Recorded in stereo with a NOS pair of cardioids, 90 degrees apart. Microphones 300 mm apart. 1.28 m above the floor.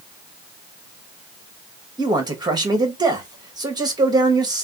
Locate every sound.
2.0 s a man speaking: 15° right, 1.2 m